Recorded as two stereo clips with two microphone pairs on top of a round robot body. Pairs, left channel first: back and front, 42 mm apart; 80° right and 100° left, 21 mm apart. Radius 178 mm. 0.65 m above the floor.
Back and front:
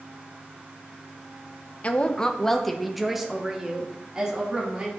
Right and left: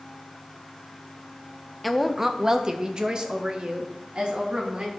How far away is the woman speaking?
About 1.1 m.